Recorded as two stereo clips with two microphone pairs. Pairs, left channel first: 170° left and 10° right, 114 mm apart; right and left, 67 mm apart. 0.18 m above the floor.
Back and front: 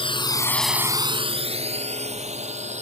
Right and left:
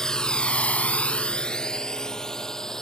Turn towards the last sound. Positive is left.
turn(degrees=-5)